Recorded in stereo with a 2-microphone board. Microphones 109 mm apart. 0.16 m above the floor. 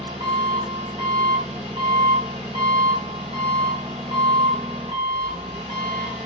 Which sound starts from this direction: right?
An engine running, at 0.0 s.